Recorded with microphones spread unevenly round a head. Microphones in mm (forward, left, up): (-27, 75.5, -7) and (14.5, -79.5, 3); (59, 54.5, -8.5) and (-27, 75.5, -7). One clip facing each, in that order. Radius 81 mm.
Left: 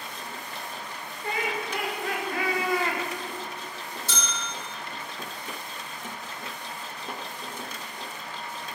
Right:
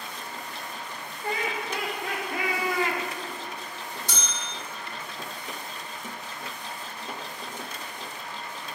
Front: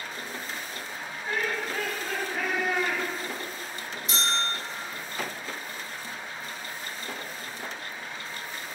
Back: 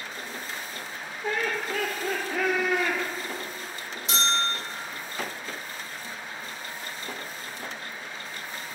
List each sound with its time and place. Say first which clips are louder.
1.2 s laughter: even, back 2 dB; 140° right, 3.5 m; by 3.0 s 155° right, 1.8 m
4.1 s a bell: left 1 dB, back 3 dB; 145° right, 2 m